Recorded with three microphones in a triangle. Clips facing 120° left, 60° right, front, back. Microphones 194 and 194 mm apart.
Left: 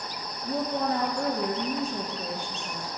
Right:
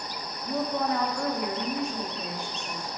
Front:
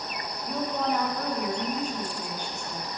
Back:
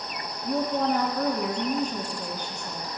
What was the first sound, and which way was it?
A woman speaking, 165° left.